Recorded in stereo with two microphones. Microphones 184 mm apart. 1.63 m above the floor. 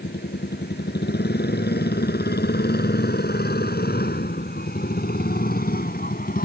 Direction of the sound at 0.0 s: 65° left (ahead or behind).